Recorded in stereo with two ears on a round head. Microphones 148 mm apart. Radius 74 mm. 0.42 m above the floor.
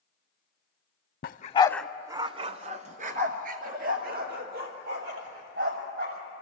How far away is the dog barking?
About 0.6 m.